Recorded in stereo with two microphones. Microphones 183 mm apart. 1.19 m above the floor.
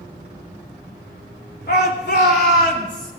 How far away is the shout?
About 3 m.